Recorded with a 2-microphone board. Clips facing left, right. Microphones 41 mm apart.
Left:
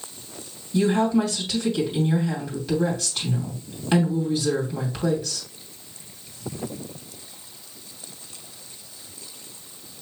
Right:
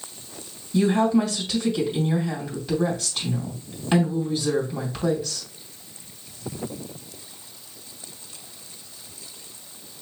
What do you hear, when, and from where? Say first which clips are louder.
0.7 s a woman speaking: right 1 dB; centre (ahead or behind), 2.5 m